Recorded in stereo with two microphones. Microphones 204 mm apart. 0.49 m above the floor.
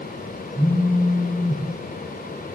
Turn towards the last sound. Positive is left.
turn(degrees=-20)  # may be behind; listen again after turning